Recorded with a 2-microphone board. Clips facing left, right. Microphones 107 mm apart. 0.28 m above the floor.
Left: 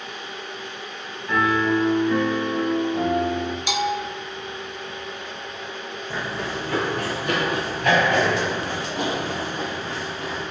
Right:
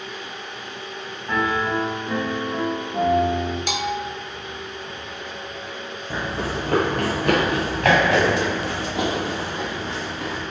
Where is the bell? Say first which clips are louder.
Left 1 dB; 55° right (ahead or behind), 0.9 m.